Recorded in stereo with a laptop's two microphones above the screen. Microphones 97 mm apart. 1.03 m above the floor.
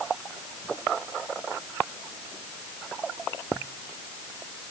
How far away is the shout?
I don't hear a shout.